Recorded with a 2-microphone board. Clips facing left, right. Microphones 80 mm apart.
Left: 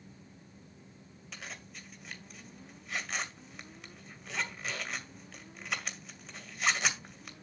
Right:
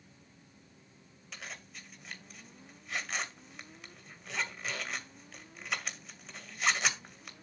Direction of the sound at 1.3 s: Centre (ahead or behind).